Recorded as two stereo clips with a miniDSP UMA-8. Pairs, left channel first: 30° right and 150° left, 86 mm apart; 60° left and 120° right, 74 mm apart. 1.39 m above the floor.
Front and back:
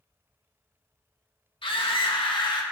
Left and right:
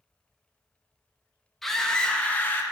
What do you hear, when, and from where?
1.6 s a scream: 25° right, 2 m; by 2.6 s straight ahead, 1.8 m